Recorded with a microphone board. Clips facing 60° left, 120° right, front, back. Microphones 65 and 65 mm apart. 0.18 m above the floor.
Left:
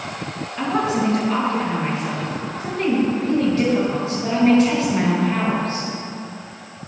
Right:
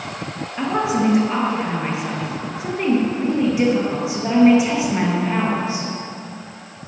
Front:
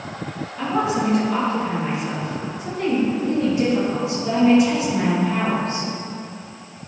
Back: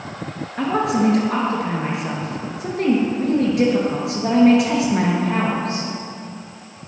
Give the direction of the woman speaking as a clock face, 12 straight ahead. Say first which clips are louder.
Right 1 dB, back 3 dB; 6 o'clock.